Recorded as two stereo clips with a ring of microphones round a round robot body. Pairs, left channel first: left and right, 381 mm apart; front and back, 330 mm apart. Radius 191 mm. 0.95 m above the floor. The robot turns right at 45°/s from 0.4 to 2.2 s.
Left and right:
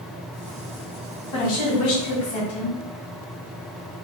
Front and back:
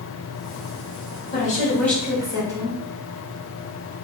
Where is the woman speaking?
60° left, 1.7 m; by 2.8 s 100° left, 1.7 m.